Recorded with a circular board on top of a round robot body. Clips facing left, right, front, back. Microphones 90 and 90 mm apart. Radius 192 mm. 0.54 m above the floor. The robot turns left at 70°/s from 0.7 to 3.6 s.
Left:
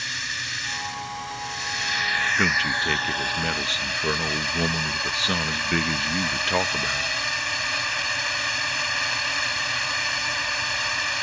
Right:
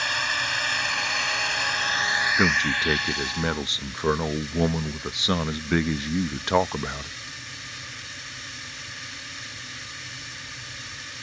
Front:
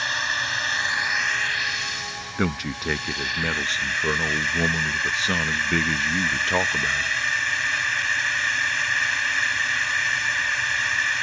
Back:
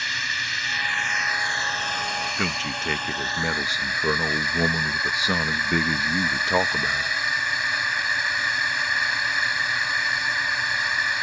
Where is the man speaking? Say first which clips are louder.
Right 1 dB, front 2 dB; 40° right; by 7.1 s 125° right.